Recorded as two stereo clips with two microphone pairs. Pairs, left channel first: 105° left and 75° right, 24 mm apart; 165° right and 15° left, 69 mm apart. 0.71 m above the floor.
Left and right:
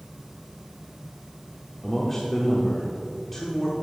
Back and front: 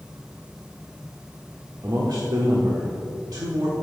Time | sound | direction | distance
1.8 | a man speaking | 30° left | 1.3 m